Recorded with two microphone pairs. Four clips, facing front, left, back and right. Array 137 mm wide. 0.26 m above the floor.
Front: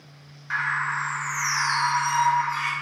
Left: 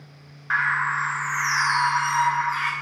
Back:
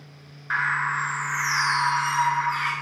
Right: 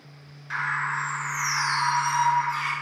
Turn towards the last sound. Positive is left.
turn(degrees=115)